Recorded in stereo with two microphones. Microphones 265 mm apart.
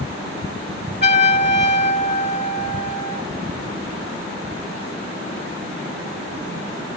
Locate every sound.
1.0 s a trumpet: 40° left (ahead or behind), 1.3 m